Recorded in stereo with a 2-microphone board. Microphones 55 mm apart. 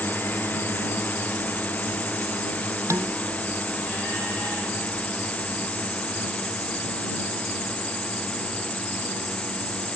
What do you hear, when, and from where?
0.0 s a drone: 30° left (ahead or behind); by 10.0 s 20° left (ahead or behind)
2.9 s dishes clattering: 60° right (ahead or behind)